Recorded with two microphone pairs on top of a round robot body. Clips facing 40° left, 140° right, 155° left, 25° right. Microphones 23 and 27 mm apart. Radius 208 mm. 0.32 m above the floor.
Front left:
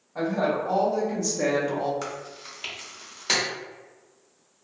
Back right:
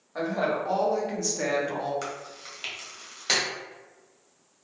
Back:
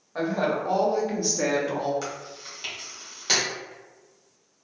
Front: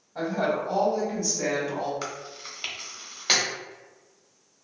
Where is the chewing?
45° right, 1.3 m.